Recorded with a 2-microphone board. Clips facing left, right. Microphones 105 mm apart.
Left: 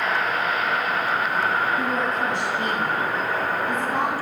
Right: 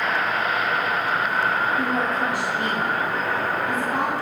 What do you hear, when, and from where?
1.8 s a woman speaking: 5° right (ahead or behind), 1.6 m